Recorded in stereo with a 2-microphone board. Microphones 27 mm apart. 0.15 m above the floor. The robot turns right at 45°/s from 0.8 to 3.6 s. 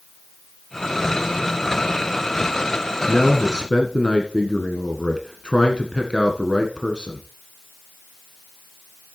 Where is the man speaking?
35° left (ahead or behind), 1.5 m.